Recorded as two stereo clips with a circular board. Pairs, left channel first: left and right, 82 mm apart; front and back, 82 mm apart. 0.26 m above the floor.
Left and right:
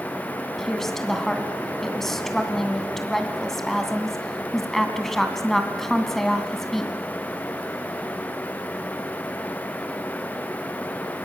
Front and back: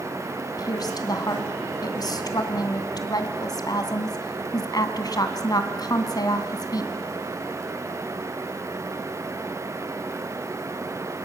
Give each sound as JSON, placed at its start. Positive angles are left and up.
{"t": 0.6, "sound": "a woman speaking", "azimuth_deg": 5, "distance_m": 2.5}